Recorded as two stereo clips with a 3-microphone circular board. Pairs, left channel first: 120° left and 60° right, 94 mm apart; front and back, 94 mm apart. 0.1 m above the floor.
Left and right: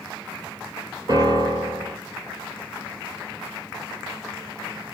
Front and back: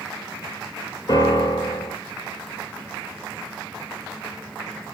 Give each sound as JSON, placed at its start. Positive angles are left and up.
{"t": 1.1, "sound": "a piano", "azimuth_deg": -30, "distance_m": 1.3}